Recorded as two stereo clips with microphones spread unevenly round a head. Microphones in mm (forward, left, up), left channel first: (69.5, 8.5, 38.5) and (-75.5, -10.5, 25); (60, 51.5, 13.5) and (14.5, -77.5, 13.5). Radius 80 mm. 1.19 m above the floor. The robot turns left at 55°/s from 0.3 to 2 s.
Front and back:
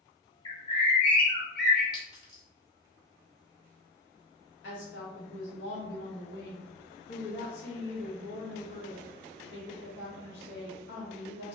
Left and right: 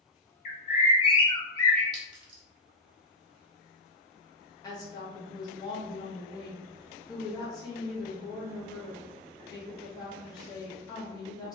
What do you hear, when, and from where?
0.5 s a bird: 65° left, 0.7 m; by 1.8 s 10° right, 0.7 m
1.9 s a clink: 55° right, 1.4 m
4.6 s a woman speaking: 10° left, 1.4 m